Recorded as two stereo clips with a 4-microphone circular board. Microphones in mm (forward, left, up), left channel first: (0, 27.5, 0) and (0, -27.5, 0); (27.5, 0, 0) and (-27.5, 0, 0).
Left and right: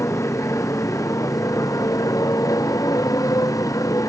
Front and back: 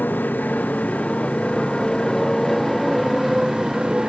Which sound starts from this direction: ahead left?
A motorcycle, at 0.0 s.